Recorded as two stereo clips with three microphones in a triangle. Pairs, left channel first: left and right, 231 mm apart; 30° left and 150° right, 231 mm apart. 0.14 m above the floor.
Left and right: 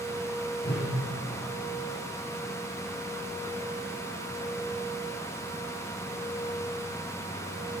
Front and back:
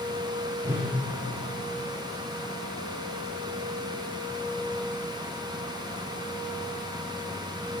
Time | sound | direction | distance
0.6 | a whoosh | 130° left | 5 m